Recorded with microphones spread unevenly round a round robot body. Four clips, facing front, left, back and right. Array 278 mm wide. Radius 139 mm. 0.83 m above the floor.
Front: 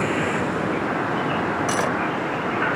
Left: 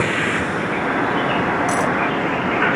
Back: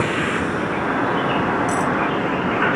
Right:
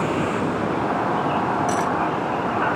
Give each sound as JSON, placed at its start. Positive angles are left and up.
{"t": 0.0, "sound": "a vehicle", "azimuth_deg": 140}
{"t": 1.7, "sound": "cutlery clinking", "azimuth_deg": 40}